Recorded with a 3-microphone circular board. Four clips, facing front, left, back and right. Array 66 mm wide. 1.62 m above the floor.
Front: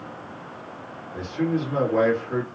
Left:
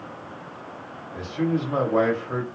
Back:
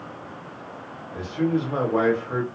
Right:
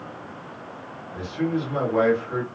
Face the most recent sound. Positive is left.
turn(degrees=120)